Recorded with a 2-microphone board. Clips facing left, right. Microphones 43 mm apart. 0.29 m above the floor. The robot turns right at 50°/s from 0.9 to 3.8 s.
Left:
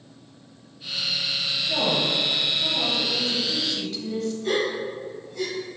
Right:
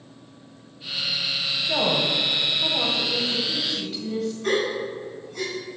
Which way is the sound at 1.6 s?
120° right.